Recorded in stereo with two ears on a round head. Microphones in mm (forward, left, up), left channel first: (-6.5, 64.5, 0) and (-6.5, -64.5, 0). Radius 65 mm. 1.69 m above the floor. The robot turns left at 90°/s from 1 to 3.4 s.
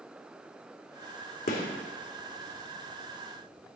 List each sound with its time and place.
1.5 s a gunshot: 65° left (ahead or behind), 2.5 m